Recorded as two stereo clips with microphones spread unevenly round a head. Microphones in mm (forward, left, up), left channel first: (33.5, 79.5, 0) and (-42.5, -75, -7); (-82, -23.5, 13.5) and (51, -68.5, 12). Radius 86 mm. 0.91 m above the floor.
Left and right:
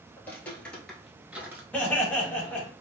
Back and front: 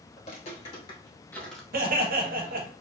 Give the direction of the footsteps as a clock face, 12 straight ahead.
7 o'clock.